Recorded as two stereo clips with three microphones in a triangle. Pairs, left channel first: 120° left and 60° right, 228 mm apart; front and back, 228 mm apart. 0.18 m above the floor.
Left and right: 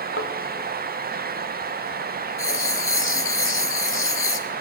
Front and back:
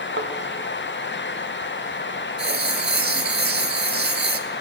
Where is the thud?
145° left, 2.0 m.